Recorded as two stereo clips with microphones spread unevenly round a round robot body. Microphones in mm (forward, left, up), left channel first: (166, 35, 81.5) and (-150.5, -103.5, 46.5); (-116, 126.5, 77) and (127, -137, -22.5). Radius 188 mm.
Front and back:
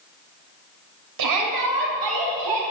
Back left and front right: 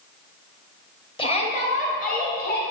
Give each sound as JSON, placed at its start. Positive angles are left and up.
{"t": 1.2, "sound": "a shout", "azimuth_deg": -145, "distance_m": 2.0}